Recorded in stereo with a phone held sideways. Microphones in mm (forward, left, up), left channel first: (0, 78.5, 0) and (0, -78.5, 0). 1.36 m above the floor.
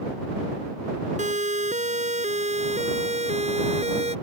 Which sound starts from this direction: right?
A siren, at 1.2 s.